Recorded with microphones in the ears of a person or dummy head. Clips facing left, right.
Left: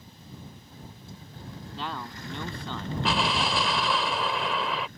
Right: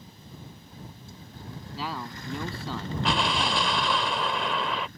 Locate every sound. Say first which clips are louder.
1.7 s a man speaking: right 1 dB; 5° right (ahead or behind)
3.0 s an explosion: even; 5° left (ahead or behind)